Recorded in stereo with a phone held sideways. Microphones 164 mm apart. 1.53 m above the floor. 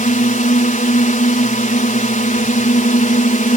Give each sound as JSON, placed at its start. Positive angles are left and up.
{"t": 0.0, "sound": "a drone", "side_deg": 50}